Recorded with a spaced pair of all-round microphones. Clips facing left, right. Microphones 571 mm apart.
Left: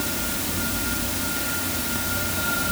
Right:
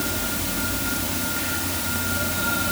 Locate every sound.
Only background noise.